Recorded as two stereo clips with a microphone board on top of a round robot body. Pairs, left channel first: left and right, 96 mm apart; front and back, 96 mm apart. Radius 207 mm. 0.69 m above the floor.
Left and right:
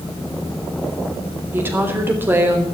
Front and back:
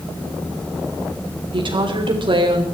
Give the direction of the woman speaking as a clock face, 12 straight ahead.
5 o'clock.